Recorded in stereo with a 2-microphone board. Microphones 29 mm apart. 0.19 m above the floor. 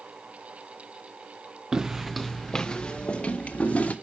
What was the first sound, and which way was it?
Footsteps, 25° right (ahead or behind).